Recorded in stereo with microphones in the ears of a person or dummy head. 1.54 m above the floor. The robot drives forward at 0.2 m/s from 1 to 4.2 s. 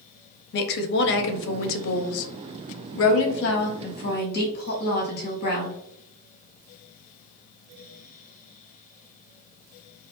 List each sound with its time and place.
0.5 s a woman speaking: 55° left (ahead or behind), 0.6 m; by 5.8 s 50° left (ahead or behind), 0.6 m